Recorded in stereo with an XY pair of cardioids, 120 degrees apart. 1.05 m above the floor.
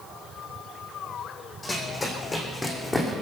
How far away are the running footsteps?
About 3 m.